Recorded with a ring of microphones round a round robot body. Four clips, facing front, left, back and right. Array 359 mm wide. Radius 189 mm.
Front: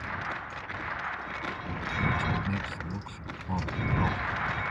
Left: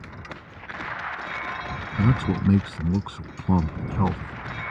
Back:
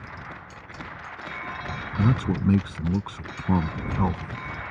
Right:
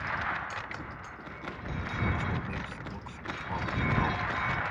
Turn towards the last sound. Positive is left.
turn(degrees=130)